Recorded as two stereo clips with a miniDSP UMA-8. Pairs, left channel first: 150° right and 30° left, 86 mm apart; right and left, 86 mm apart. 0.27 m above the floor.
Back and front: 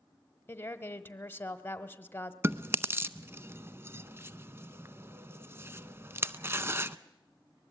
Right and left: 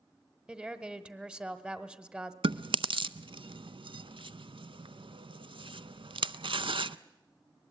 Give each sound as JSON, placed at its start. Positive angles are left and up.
{"t": 0.5, "sound": "a woman speaking", "azimuth_deg": 160, "distance_m": 1.1}
{"t": 2.4, "sound": "chewing", "azimuth_deg": 90, "distance_m": 0.5}